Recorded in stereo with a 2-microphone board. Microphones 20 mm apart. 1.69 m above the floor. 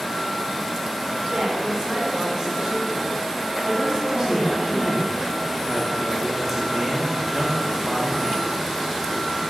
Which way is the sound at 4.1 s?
5° right (ahead or behind).